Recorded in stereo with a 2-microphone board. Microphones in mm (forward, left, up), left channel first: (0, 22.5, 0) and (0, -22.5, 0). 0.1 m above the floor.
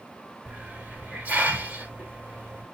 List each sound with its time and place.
0.5 s a hiss: 35° right (ahead or behind), 2 m